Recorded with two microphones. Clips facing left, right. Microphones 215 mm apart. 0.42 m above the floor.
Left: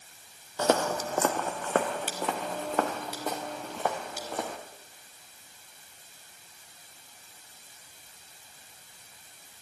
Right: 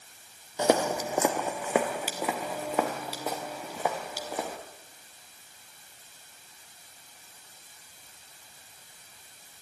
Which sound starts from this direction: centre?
Footsteps, at 0.6 s.